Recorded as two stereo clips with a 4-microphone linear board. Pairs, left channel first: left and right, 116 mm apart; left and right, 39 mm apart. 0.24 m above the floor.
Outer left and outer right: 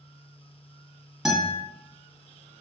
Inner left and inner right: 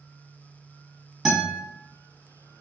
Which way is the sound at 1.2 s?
5° right (ahead or behind).